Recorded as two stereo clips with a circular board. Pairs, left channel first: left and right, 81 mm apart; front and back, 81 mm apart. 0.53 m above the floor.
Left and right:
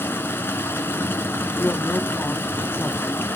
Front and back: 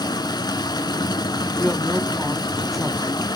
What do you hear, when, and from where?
0.0 s running water: 30° left, 1.5 m
1.6 s a man speaking: 90° left, 0.7 m